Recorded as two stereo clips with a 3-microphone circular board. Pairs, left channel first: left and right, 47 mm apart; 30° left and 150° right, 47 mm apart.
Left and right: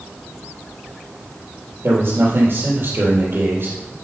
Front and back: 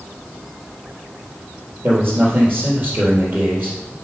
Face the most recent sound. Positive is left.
turn(degrees=-120)